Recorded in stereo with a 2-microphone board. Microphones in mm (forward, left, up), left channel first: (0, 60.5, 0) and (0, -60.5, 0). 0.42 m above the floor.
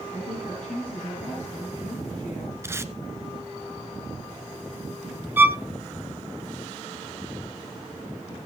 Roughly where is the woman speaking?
Left.